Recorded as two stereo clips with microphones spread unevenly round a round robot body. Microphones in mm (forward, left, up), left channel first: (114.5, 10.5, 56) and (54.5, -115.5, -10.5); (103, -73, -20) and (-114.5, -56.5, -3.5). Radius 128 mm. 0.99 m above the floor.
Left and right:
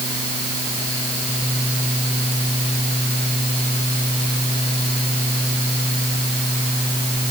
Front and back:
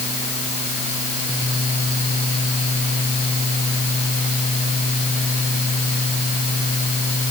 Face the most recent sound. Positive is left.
No sound to turn to.